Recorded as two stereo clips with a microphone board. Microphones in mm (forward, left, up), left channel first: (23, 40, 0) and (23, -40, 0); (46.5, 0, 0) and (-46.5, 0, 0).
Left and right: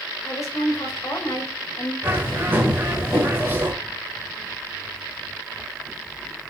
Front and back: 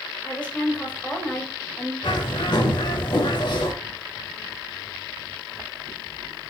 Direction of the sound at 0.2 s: 70° left.